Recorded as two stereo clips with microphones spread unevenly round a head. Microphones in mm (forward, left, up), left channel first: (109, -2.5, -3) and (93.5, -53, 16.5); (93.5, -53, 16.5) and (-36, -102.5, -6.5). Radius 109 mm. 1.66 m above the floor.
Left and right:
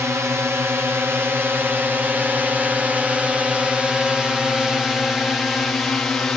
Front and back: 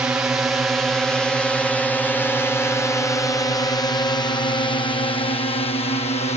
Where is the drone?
100° right; by 6.4 s 20° left.